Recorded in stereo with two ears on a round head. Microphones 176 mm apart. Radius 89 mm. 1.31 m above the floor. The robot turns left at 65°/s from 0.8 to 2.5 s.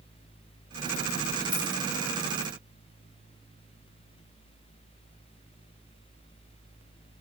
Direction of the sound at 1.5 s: 70° left (ahead or behind).